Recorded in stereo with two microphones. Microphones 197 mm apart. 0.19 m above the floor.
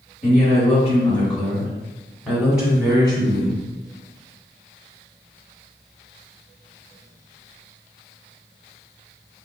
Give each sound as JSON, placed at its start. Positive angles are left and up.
{"t": 0.2, "sound": "a woman speaking", "side_deg": 35, "distance_m": 2.0}